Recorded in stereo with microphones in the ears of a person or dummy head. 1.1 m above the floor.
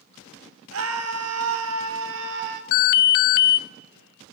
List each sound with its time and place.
0.7 s a scream: 70° right (ahead or behind), 2.5 m; by 2.6 s 50° right (ahead or behind), 2 m
2.7 s an alarm: 60° left (ahead or behind), 0.8 m